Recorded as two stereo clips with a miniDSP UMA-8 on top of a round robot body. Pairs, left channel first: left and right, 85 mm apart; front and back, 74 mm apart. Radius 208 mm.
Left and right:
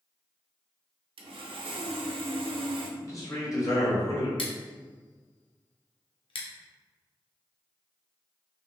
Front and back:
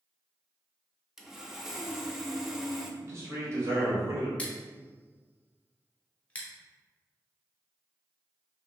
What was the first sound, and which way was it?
Sawing, 95° right.